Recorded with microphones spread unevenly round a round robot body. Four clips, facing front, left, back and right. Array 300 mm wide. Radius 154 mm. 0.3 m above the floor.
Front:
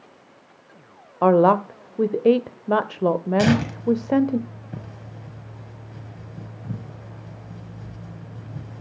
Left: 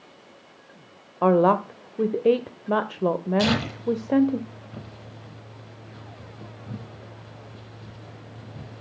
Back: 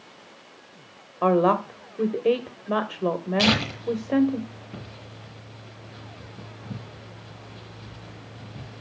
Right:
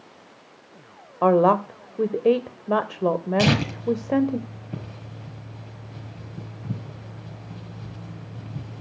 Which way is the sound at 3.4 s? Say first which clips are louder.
Right 2 dB, front 3 dB; 55° right.